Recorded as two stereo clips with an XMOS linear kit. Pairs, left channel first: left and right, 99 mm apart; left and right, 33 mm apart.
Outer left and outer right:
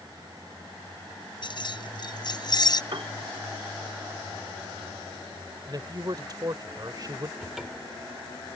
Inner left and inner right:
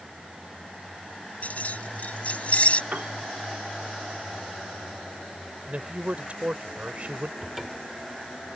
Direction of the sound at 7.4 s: 5° right (ahead or behind).